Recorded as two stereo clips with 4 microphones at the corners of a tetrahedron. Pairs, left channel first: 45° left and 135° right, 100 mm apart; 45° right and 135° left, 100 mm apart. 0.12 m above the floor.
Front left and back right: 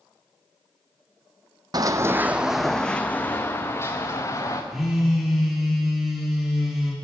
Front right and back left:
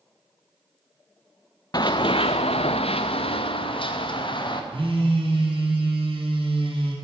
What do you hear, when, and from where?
1.7 s running footsteps: 90° right, 0.5 m; by 4.6 s 10° right, 1.4 m
4.7 s a phone buzzing: 135° left, 2.5 m